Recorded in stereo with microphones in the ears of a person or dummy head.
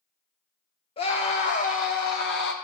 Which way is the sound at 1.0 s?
35° left (ahead or behind).